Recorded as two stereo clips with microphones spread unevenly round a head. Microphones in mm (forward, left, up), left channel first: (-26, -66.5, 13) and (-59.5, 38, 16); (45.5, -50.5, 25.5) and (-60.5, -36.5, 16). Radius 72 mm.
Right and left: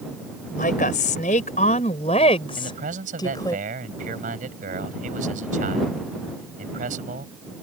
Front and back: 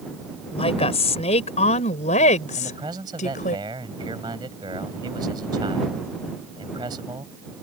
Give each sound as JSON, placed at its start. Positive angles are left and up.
{"t": 0.5, "sound": "a woman speaking", "azimuth_deg": -35}
{"t": 2.6, "sound": "a man speaking", "azimuth_deg": 105}